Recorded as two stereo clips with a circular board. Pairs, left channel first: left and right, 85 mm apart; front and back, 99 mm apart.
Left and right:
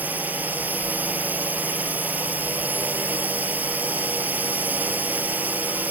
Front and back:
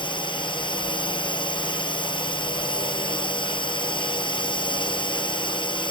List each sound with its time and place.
0.0 s a drone: 25° right